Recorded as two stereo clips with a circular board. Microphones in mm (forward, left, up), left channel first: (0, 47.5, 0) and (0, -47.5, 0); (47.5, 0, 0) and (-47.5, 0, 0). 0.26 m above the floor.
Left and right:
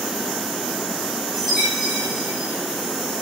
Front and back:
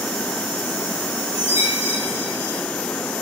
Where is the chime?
Straight ahead, 4 m.